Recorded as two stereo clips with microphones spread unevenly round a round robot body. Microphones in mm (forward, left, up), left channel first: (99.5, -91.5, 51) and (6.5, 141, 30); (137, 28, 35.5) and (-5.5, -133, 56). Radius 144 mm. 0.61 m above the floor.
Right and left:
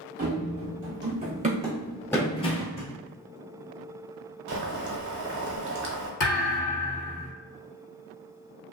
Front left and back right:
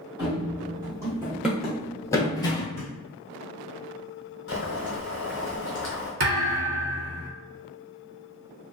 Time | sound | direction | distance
0.2 | running footsteps | 160° left | 1.3 m
2.8 | a thud | 165° right | 1.3 m
4.5 | boiling | 100° left | 0.9 m
6.2 | a thud | 105° right | 1.5 m